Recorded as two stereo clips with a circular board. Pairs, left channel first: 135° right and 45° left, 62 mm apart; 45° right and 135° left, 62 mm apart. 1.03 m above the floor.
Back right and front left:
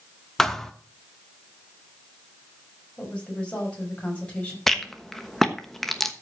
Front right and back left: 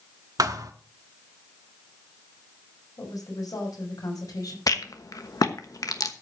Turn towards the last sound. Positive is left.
turn(degrees=-45)